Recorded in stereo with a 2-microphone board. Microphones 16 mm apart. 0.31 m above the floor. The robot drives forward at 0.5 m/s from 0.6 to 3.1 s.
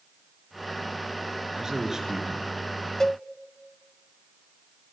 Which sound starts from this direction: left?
A cowbell, at 3.0 s.